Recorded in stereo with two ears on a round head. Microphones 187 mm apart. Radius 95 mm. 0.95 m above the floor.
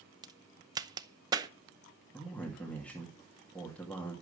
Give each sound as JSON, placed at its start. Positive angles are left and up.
{"t": 0.2, "sound": "a crack", "side_deg": -20, "distance_m": 0.6}
{"t": 2.1, "sound": "a man speaking", "side_deg": 5, "distance_m": 2.0}